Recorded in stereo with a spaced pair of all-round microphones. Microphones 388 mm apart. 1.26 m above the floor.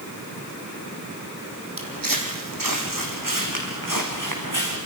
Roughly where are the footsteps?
Right.